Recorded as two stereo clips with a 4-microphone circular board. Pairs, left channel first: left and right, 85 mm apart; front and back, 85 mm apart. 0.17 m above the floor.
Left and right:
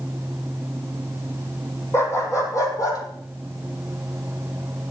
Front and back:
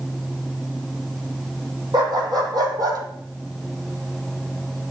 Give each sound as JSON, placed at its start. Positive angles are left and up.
{"t": 1.9, "sound": "a dog barking", "azimuth_deg": 150, "distance_m": 2.5}